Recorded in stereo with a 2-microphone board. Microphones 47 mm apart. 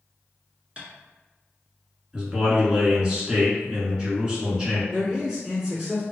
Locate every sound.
0.8 s tapping: 25° right (ahead or behind), 1.3 m
2.1 s a man speaking: 20° right (ahead or behind), 1.2 m
4.9 s a man speaking: 15° right (ahead or behind), 1.6 m